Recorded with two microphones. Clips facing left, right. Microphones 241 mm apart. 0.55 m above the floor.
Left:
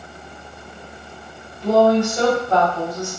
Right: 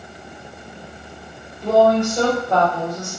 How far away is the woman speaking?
About 1.3 m.